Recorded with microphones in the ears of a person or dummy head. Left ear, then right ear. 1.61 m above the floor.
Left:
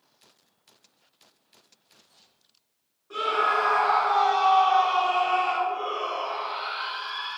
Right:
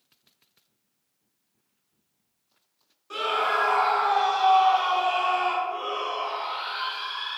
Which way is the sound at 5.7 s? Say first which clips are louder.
Left 1 dB; 80° right.